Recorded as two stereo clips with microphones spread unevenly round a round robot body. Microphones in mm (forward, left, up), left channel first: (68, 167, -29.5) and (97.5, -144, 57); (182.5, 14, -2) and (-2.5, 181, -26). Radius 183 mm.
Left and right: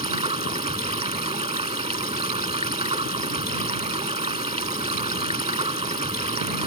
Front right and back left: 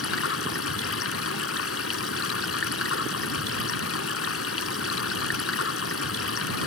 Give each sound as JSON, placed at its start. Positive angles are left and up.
{"t": 0.0, "sound": "running water", "azimuth_deg": -15}